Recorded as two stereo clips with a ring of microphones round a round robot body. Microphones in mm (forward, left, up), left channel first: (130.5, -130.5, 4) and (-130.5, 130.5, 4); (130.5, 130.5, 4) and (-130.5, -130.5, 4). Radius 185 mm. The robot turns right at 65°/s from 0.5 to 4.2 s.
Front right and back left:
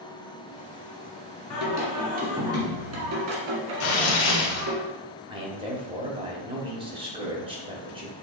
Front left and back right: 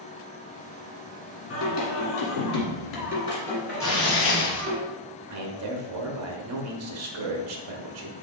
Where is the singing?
10° right, 1.7 m; by 4.8 s 165° left, 1.7 m.